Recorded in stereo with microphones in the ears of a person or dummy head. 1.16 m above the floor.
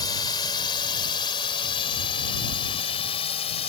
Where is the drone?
20° left (ahead or behind); by 3.7 s 30° left (ahead or behind).